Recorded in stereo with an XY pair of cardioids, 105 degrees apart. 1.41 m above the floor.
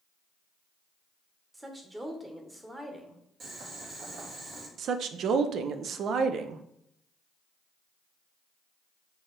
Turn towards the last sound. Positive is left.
turn(degrees=-60)